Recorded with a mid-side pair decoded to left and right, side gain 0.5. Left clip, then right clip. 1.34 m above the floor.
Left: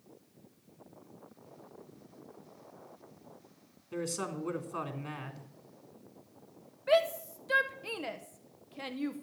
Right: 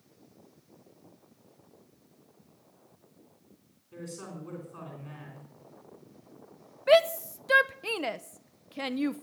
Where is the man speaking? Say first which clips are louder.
Left 7 dB; 60° left, 3.5 m.